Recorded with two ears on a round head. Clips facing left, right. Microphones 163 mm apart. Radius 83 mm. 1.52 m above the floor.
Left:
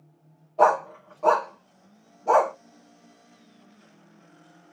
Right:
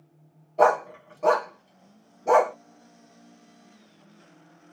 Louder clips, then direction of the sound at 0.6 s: Even; 20° right (ahead or behind).